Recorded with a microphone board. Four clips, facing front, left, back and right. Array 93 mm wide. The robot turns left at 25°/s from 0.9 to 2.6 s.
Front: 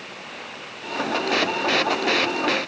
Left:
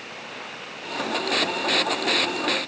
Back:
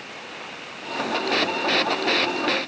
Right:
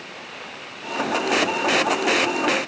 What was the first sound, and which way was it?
Only background noise.